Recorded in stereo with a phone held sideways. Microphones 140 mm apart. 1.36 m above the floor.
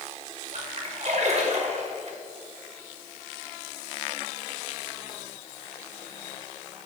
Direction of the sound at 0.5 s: 55° right (ahead or behind).